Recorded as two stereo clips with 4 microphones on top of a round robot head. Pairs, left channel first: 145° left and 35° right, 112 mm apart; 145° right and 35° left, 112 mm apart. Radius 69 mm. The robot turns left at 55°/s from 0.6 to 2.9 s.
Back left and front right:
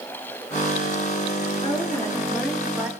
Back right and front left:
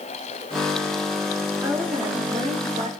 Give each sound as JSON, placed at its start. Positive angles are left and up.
{"t": 1.6, "sound": "a woman speaking", "azimuth_deg": 105, "distance_m": 2.0}